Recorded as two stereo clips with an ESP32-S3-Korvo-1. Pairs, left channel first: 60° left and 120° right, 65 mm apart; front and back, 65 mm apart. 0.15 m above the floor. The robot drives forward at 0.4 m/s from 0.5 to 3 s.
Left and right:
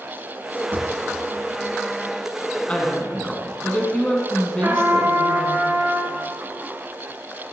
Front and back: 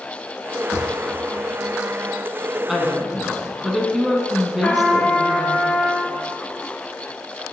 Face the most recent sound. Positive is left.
turn(degrees=-80)